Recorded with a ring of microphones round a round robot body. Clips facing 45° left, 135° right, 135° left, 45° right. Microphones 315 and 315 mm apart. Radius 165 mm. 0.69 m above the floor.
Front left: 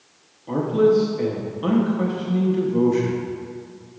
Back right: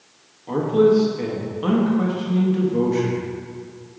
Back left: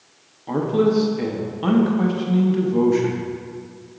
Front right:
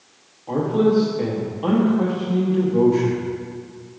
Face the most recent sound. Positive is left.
turn(degrees=135)